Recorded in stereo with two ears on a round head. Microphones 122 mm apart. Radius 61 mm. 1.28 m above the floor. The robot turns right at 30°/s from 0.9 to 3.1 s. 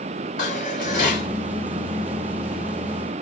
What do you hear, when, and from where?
0.4 s dishes clattering: 65° left (ahead or behind), 2.5 m; by 1.3 s 55° left (ahead or behind), 2.5 m